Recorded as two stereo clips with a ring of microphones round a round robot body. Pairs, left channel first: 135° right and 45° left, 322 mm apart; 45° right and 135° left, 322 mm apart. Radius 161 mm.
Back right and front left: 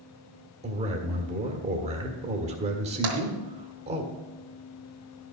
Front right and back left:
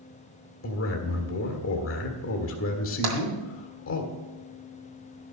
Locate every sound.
0.6 s a man speaking: 15° right, 1.7 m
3.0 s tapping: 90° left, 2 m